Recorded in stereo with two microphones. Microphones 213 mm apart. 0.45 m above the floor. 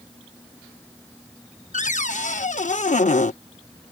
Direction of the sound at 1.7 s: 35° left (ahead or behind).